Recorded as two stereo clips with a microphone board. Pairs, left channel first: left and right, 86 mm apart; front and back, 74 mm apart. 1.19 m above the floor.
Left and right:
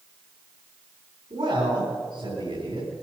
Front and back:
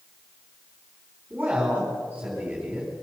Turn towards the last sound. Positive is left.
turn(degrees=-110)